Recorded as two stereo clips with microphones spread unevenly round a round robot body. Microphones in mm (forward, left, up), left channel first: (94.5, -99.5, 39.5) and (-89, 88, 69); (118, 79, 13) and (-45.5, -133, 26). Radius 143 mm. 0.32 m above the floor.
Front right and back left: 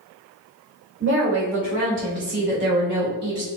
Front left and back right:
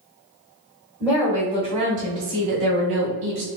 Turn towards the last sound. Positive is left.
turn(degrees=-170)